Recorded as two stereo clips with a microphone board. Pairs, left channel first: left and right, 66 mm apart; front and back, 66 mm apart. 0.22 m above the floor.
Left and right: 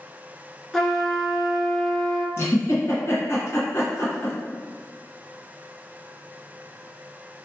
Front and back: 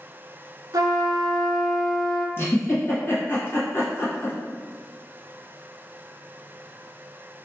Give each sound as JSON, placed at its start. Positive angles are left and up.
{"t": 0.7, "sound": "a trumpet", "azimuth_deg": 175, "distance_m": 0.7}
{"t": 2.4, "sound": "a giggle", "azimuth_deg": 45, "distance_m": 1.5}